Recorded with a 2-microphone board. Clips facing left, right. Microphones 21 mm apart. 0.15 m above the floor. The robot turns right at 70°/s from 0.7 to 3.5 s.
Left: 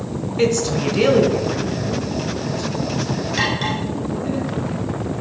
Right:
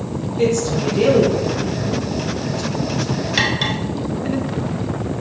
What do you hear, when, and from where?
0.4 s a woman speaking: 40° left (ahead or behind), 2.0 m; by 4.4 s 35° right (ahead or behind), 2.0 m
3.4 s cutlery clinking: 30° right (ahead or behind), 1.3 m; by 3.8 s 25° right (ahead or behind), 1.3 m